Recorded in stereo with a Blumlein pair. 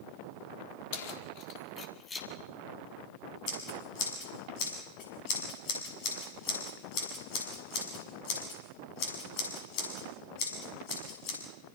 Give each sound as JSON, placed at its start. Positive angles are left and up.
{"t": 0.9, "sound": "keys jangling", "azimuth_deg": 50, "distance_m": 2.5}
{"t": 3.5, "sound": "scissors", "azimuth_deg": 45, "distance_m": 7.0}